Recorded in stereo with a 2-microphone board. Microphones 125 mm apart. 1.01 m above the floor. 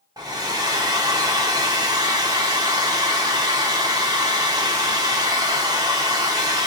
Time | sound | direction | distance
0.2 | a hair dryer | 30° right (ahead or behind) | 0.8 m